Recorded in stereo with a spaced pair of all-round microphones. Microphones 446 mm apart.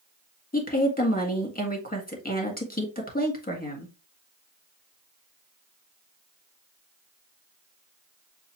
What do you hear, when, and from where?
0.5 s a woman speaking: 20° left (ahead or behind), 1.7 m